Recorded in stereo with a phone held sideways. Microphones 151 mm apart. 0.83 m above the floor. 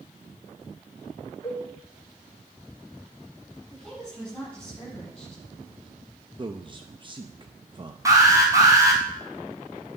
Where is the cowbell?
20° left (ahead or behind), 2 m.